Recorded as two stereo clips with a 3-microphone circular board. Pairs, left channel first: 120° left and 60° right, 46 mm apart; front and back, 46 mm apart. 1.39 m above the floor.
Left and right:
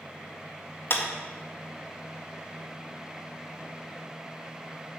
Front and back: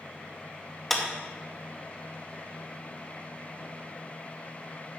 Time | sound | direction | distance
0.9 | a clap | 85° left | 1.8 m